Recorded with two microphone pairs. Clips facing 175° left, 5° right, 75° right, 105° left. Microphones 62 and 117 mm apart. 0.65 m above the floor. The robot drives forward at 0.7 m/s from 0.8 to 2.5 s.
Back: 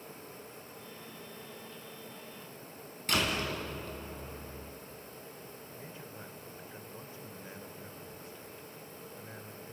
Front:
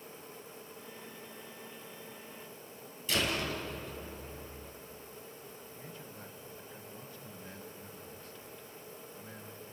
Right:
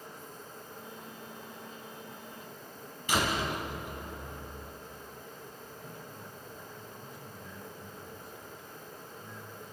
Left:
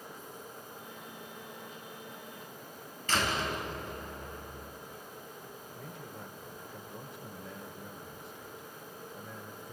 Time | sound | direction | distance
3.1 | a door slam | 155° right | 4.5 m
5.8 | a man speaking | 105° left | 2 m